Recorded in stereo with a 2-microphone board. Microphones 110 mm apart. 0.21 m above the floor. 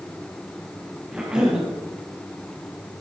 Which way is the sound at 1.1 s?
5° right (ahead or behind).